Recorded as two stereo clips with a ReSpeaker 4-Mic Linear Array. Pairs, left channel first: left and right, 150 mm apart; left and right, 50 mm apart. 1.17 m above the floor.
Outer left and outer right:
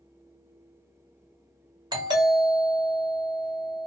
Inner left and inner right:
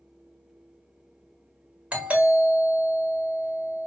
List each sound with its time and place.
1.9 s a doorbell: 30° right (ahead or behind), 1.3 m